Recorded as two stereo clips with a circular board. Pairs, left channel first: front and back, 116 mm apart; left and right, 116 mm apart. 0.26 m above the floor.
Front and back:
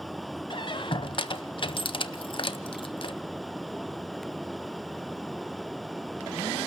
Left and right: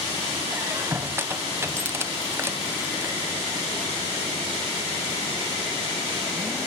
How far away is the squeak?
About 0.7 m.